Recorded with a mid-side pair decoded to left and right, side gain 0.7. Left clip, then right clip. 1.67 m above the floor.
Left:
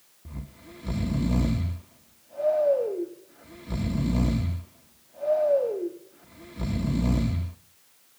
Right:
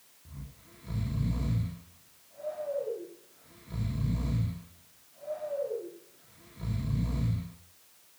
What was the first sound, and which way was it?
Snoring, 50° left.